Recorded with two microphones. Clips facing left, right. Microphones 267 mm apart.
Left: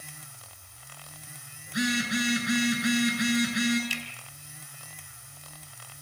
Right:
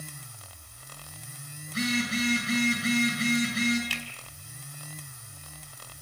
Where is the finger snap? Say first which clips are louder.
Left 1 dB; 70° right (ahead or behind), 4 m.